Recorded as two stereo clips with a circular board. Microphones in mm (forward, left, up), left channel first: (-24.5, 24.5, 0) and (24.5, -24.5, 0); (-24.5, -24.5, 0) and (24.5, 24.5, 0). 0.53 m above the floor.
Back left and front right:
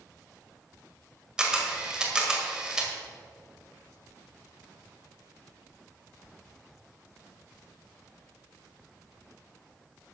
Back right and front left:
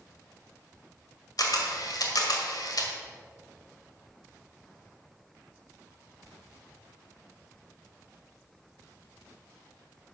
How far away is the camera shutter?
About 1.9 m.